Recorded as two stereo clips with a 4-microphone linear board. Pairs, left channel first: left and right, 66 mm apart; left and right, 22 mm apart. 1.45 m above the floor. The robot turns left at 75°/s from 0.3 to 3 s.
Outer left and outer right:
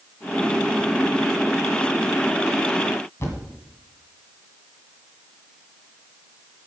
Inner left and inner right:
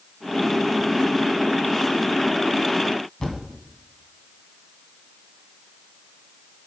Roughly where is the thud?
Left.